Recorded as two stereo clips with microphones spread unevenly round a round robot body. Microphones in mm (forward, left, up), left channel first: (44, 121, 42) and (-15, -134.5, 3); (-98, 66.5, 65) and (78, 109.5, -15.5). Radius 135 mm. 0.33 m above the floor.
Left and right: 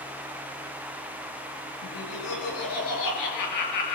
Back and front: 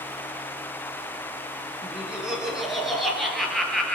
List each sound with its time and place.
1.8 s laughter: 95° left, 7 m; by 4.0 s 105° left, 7 m